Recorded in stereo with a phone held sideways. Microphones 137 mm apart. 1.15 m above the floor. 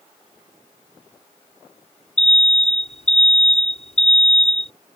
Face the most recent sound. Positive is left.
turn(degrees=50)  # may be behind; listen again after turning